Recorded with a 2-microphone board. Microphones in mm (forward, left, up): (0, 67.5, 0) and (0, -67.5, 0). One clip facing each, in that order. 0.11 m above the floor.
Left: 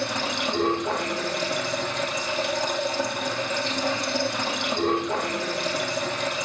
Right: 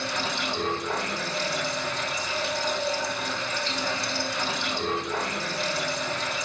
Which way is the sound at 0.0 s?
55° left (ahead or behind).